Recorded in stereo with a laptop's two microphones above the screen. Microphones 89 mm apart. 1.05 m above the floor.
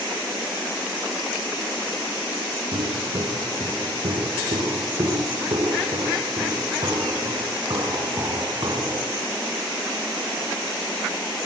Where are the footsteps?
75° right (ahead or behind), 7.5 m; by 9.1 s 45° right (ahead or behind), 10 m.